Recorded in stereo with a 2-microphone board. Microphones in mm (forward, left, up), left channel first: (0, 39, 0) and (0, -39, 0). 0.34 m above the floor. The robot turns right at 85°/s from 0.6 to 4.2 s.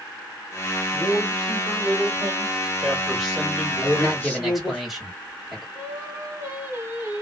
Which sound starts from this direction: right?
Singing, at 5.8 s.